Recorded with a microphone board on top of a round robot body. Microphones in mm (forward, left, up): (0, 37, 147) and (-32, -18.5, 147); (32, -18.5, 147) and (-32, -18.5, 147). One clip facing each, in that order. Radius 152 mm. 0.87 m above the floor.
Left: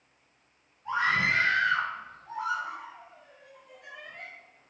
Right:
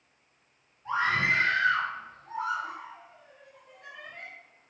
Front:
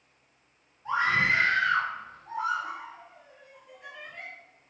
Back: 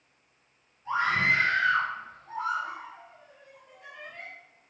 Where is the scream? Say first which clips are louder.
Even, even; 65° right, 3 m.